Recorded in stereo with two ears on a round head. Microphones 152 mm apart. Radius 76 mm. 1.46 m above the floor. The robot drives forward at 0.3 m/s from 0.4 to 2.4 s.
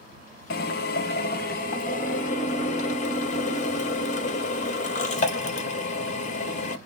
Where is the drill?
60° left (ahead or behind), 0.6 m; by 6.8 s 45° left (ahead or behind), 0.8 m.